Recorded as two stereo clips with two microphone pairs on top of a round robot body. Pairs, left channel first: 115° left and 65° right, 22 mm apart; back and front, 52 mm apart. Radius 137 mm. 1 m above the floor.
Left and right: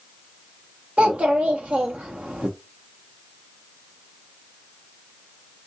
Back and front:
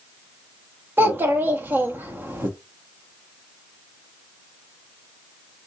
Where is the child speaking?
50° right, 0.8 m.